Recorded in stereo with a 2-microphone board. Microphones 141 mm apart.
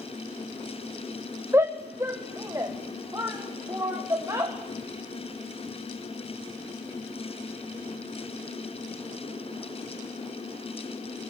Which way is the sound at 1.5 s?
20° right (ahead or behind).